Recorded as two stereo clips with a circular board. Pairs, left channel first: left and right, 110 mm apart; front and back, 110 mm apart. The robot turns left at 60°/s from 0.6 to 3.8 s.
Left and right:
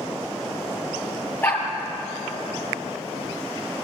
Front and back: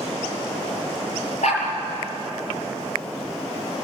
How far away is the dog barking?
About 4.5 m.